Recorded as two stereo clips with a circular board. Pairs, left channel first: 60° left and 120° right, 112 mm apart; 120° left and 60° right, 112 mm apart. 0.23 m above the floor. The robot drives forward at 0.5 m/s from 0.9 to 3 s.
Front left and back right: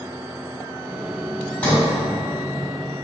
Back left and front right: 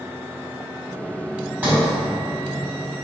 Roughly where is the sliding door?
Ahead.